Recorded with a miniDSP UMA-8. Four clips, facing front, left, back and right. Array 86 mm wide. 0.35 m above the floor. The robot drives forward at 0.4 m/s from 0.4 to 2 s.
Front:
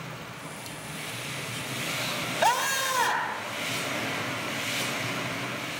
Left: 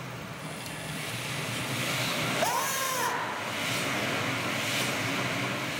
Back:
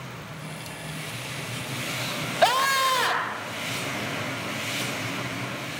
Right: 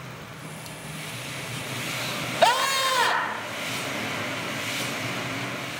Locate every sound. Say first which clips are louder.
2.4 s a scream: right 11 dB, back 4 dB; 130° right, 1.4 m